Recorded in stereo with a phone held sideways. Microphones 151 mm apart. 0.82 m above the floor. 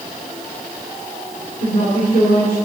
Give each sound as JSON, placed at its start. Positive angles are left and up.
{"t": 1.6, "sound": "a woman speaking", "side_deg": 70, "distance_m": 2.5}